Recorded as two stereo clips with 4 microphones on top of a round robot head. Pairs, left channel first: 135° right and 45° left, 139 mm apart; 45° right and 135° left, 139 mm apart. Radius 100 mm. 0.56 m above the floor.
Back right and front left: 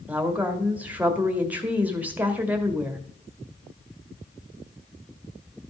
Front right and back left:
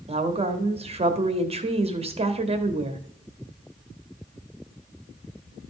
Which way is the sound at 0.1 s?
120° left.